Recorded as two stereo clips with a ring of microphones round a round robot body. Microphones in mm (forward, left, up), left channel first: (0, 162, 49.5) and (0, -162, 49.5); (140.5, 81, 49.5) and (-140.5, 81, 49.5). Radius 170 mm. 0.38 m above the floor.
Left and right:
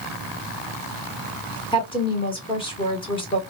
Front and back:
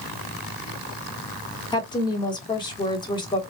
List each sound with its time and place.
1.7 s a woman speaking: 45° left, 1.2 m